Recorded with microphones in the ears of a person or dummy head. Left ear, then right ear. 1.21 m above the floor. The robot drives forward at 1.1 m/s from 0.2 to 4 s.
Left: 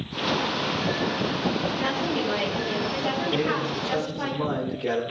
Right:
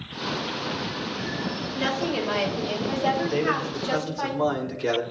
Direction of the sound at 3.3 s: 80° right.